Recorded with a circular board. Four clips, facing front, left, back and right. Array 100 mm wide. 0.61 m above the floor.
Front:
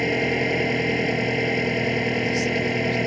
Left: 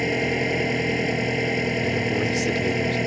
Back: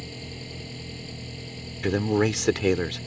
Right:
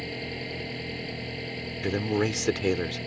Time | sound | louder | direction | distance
0.0 | an engine running | left 12 dB, front 18 dB | 35° left | ?
1.8 | a man speaking | left 3 dB, even | 165° right | ?